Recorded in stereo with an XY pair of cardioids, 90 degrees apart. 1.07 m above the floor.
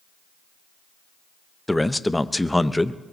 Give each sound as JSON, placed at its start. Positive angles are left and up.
{"t": 1.7, "sound": "a man speaking", "azimuth_deg": 10, "distance_m": 0.6}